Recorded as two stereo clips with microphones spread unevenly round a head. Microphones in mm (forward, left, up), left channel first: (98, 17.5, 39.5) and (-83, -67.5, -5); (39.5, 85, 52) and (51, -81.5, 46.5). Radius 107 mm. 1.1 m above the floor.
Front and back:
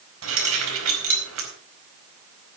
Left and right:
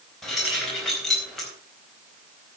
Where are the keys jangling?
Straight behind, 4.5 m.